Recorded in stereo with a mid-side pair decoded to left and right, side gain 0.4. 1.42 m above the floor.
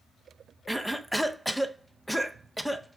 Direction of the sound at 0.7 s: Straight ahead.